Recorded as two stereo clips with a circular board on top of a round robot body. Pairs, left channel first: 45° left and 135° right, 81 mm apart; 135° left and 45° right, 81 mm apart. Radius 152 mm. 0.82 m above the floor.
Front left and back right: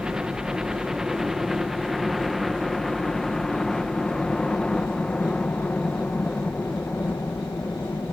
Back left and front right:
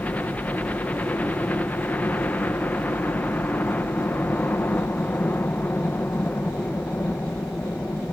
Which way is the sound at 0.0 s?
160° left.